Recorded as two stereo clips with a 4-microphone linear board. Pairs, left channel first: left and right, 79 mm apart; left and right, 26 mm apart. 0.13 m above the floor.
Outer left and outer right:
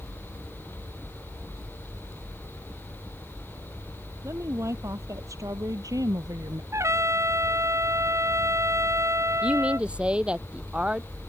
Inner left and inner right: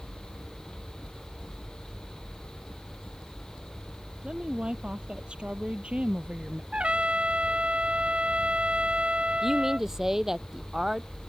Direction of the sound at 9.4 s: 15° right (ahead or behind).